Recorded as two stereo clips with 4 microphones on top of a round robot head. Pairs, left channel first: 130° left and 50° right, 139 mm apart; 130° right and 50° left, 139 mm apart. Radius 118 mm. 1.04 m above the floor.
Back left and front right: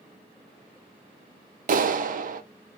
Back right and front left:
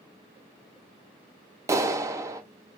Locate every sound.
1.7 s a clap: 20° right, 0.7 m